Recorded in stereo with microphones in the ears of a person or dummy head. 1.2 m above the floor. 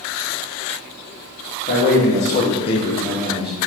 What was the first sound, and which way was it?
A man speaking, 40° left (ahead or behind).